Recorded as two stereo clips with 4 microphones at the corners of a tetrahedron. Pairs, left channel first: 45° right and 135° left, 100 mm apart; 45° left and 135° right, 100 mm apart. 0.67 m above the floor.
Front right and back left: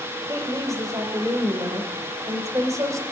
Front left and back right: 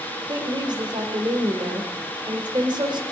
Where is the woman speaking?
170° right, 2.5 m.